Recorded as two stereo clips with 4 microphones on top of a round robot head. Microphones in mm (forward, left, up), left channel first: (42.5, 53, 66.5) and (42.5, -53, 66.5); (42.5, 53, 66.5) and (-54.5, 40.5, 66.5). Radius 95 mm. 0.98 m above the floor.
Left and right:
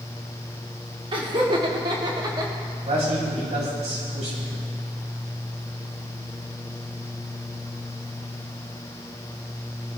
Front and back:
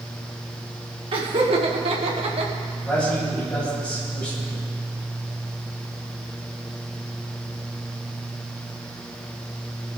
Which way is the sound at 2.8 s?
70° right.